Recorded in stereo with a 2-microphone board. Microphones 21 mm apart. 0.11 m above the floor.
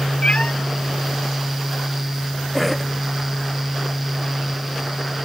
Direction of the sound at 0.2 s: 55° left (ahead or behind).